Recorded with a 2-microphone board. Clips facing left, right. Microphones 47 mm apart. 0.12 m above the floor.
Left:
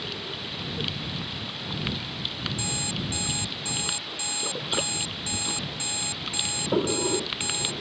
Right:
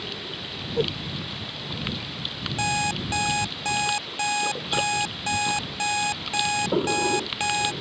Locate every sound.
0.8 s a whoosh: 75° right (ahead or behind)
2.6 s an alarm clock: 55° right (ahead or behind)